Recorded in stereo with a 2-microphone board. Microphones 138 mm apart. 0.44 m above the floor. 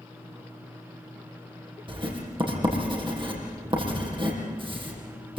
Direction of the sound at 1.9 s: 35° right (ahead or behind).